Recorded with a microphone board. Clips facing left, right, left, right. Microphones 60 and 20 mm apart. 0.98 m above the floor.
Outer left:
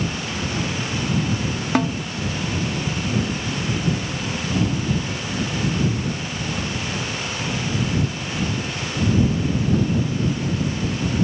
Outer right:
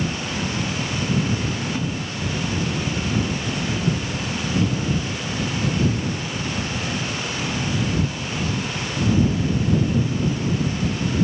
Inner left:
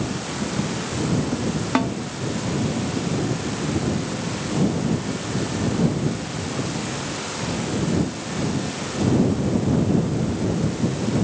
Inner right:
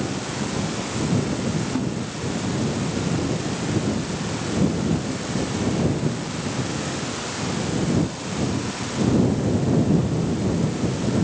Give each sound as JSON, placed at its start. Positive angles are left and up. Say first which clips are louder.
{"t": 1.8, "sound": "a snare drum", "louder": "outer left 6 dB, inner left 4 dB", "side_deg": 75}